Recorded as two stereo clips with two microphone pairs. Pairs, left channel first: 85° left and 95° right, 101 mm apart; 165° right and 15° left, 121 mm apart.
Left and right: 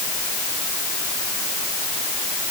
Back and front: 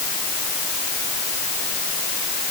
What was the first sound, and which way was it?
Only background noise.